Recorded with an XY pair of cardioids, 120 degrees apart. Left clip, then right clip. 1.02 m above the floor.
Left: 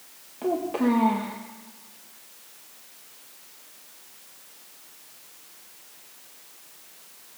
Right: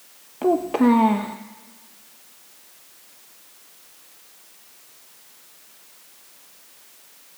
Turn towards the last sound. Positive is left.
turn(degrees=-45)